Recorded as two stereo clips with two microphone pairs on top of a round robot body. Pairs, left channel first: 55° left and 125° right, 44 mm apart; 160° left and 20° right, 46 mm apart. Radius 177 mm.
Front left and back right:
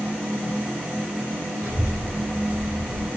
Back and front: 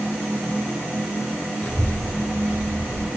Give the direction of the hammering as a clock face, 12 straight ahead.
I don't hear hammering.